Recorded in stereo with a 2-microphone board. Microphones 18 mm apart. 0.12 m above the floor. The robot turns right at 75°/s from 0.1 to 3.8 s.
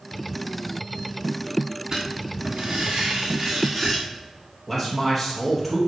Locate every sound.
1.9 s writing: 145° right, 4 m; by 4.0 s 5° right, 4 m
4.7 s a man speaking: 10° right (ahead or behind), 3 m